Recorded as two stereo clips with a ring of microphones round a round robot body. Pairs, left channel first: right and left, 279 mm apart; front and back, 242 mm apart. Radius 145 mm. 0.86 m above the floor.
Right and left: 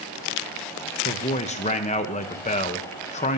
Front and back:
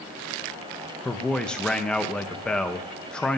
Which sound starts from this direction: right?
A man speaking, at 1.1 s.